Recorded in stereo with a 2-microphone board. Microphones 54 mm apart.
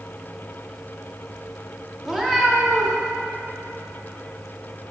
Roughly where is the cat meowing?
Centre.